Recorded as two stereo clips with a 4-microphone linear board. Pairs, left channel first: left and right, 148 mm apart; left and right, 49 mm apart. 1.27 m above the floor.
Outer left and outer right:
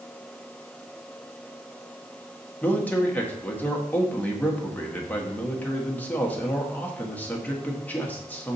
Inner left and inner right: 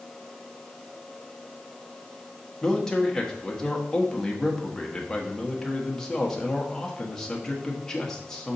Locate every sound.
2.6 s a man speaking: 10° left (ahead or behind), 1.5 m